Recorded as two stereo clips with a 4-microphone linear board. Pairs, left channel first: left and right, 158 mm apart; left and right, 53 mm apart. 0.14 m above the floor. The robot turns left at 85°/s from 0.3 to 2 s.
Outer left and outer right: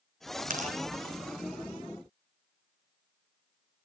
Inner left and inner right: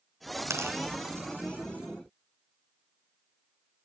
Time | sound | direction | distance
0.5 | tearing paper | 60° right (ahead or behind) | 2 m